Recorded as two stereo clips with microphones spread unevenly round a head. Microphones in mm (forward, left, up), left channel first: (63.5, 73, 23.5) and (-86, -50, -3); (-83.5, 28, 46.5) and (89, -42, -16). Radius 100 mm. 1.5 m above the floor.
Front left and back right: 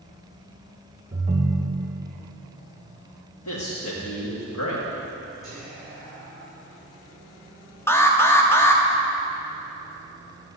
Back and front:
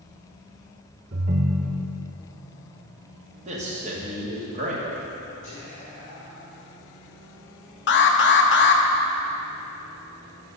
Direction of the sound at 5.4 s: 130° left.